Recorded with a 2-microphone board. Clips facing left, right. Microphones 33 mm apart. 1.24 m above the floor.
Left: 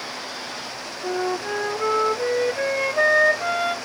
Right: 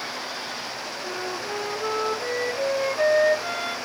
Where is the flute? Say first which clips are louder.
Left 8 dB; 65° left (ahead or behind), 1.7 m.